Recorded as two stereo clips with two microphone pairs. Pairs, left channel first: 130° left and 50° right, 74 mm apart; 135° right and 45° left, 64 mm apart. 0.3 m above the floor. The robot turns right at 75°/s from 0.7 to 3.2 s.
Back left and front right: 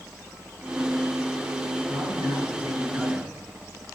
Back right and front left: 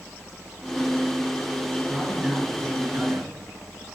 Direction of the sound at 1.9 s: 65° right.